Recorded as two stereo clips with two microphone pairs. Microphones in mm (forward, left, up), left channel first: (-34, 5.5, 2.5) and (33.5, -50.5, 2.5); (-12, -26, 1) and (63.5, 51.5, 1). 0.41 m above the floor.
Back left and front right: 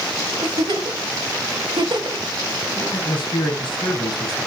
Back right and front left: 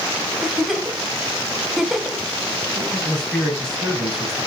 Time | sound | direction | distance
0.4 | a giggle | 35° right | 1.0 m
2.8 | a man speaking | 145° left | 3 m